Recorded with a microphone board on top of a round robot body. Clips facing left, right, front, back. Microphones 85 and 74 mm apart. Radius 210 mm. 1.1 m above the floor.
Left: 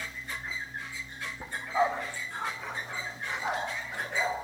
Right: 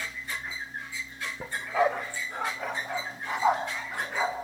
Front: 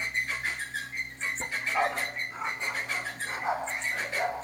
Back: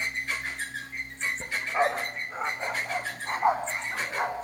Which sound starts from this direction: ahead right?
A dog barking, at 1.4 s.